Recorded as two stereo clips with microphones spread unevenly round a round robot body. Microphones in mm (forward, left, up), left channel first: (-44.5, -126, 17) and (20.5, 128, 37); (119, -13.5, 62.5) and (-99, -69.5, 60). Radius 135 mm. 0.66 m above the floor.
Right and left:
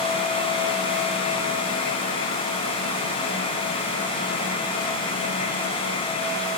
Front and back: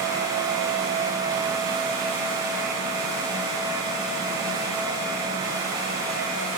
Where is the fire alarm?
I don't hear a fire alarm.